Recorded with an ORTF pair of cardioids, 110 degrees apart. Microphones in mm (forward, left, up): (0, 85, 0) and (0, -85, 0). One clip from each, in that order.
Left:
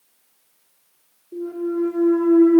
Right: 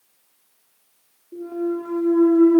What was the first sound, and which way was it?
A clunk, straight ahead.